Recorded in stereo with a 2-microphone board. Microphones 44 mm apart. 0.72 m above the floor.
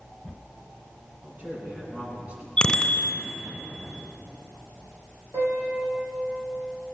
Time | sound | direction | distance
1.2 | a man speaking | 30° right (ahead or behind) | 8.5 m
2.6 | a bicycle bell | 15° left (ahead or behind) | 2 m
5.3 | a piano | 85° right | 8 m